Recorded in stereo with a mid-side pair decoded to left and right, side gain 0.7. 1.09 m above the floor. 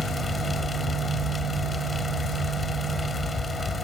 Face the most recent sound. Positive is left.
turn(degrees=15)